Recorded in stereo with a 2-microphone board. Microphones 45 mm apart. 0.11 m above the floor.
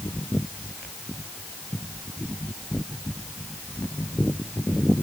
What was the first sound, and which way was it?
Only background noise.